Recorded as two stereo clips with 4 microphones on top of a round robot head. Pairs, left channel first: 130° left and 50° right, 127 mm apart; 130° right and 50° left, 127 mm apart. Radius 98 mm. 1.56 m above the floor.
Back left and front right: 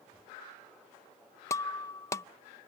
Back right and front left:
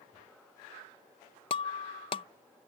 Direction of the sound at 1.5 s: 165° right.